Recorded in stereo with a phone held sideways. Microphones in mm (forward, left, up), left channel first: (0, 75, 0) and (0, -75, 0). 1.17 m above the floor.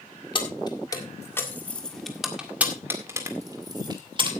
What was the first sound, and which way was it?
Keys jangling, 35° left (ahead or behind).